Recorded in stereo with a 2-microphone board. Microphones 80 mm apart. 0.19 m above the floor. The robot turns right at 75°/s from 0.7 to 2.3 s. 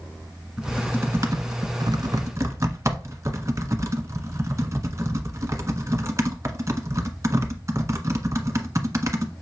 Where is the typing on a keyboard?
10° right (ahead or behind), 1.2 m; by 9.3 s 40° right (ahead or behind), 1.2 m.